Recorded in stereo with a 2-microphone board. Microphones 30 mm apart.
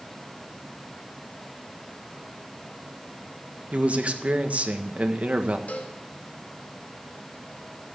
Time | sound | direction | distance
3.7 | a man speaking | 45° right (ahead or behind) | 1.5 m
5.7 | a cowbell | 55° left (ahead or behind) | 2 m